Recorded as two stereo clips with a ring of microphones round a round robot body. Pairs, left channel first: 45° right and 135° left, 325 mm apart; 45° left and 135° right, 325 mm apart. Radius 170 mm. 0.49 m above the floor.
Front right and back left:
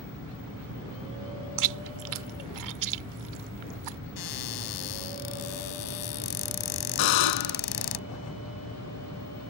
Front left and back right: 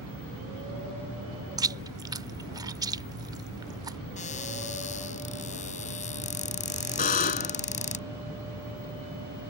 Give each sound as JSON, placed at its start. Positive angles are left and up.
{"t": 1.6, "sound": "chewing", "azimuth_deg": 145}
{"t": 4.2, "sound": "a cupboard door", "azimuth_deg": -25}
{"t": 7.0, "sound": "a buzzer", "azimuth_deg": -20}